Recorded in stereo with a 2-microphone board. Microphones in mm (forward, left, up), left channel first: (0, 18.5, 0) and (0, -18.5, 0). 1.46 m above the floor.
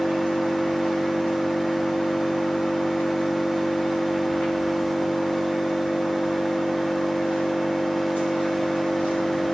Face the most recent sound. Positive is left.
turn(degrees=70)  # may be behind; listen again after turning